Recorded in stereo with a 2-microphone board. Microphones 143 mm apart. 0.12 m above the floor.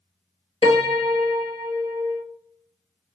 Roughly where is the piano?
Left.